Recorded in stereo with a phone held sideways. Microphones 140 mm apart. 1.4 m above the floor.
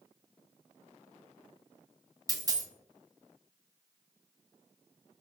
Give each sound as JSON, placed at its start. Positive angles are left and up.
{"t": 2.3, "sound": "a dropped coin", "side_deg": -25, "distance_m": 0.7}